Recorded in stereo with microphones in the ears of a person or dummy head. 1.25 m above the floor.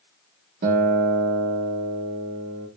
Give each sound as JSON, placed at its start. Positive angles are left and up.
{"t": 0.6, "sound": "a guitar", "side_deg": -50, "distance_m": 1.1}